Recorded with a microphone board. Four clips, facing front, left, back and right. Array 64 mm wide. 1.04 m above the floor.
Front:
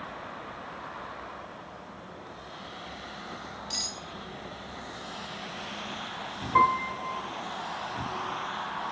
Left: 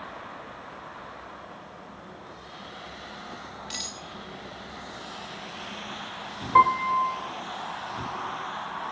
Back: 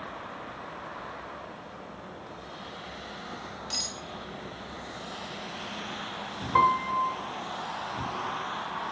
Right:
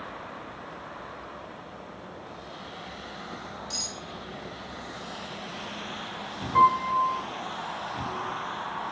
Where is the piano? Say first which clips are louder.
Left 1 dB, back 1 dB; 110° left, 0.7 m.